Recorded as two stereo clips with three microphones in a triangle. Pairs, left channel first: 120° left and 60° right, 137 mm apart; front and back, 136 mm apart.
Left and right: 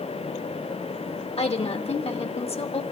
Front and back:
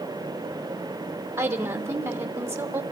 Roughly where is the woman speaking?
Behind left.